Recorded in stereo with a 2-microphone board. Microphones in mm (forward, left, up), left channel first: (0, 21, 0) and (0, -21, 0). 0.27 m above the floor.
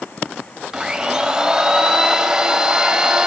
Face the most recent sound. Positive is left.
turn(degrees=-20)  # may be behind; listen again after turning